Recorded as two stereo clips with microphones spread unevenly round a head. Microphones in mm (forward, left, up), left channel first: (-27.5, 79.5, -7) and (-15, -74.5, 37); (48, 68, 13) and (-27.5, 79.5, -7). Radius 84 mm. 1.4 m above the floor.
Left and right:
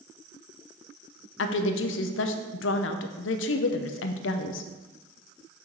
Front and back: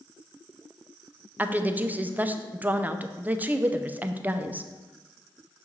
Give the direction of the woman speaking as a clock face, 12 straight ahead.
9 o'clock.